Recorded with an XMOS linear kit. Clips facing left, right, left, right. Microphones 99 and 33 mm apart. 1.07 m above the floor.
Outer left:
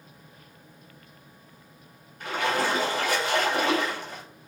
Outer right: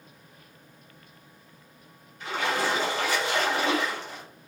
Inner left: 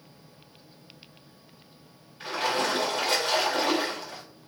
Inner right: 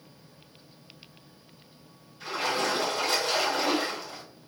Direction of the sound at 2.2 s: 55° left (ahead or behind).